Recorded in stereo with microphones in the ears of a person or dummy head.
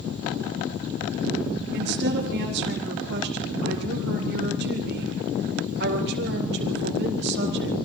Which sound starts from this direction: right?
A woman speaking, at 1.7 s.